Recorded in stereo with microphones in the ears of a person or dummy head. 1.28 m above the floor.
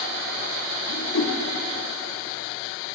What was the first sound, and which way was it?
A whoosh, 80° left.